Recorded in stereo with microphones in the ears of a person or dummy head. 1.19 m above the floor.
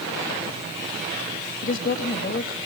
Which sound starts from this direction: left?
A woman speaking, at 1.6 s.